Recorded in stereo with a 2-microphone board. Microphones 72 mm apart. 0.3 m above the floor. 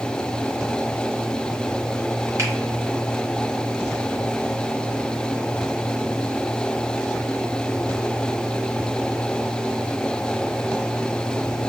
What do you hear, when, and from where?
2.4 s a finger snap: 45° right (ahead or behind), 1.3 m